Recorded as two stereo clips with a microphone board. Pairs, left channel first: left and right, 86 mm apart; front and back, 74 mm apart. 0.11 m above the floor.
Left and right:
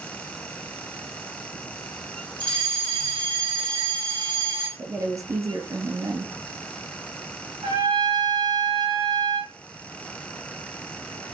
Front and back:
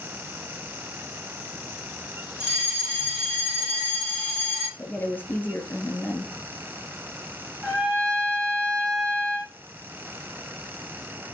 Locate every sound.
2.4 s a fire alarm: 100° right, 5.5 m
4.8 s a woman speaking: 55° right, 1.9 m
7.6 s a trumpet: 95° right, 6.5 m